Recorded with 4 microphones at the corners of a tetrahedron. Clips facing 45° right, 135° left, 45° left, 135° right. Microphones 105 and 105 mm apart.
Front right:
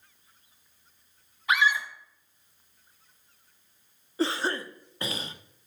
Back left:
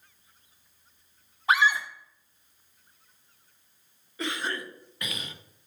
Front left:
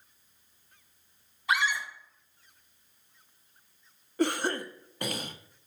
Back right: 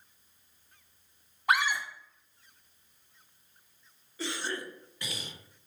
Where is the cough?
10° left, 0.6 m.